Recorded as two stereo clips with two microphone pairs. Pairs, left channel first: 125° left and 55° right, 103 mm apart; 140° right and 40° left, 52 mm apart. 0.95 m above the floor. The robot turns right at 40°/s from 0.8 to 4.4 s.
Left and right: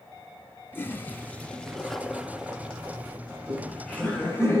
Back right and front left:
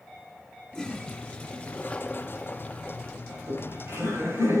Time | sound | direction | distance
0.7 | a toilet flushing | 160° left | 0.9 m
3.3 | laughter | 20° left | 5 m